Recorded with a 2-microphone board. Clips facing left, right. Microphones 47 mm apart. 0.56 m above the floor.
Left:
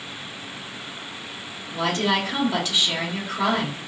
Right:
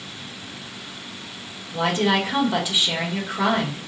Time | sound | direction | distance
1.7 | a woman speaking | 15° right (ahead or behind) | 2.0 m